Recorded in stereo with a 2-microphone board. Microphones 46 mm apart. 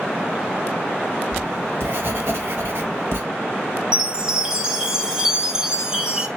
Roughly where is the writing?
Right.